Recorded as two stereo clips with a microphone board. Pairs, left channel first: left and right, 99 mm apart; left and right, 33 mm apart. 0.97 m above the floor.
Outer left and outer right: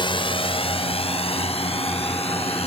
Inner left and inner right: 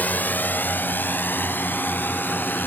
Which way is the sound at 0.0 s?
55° left (ahead or behind).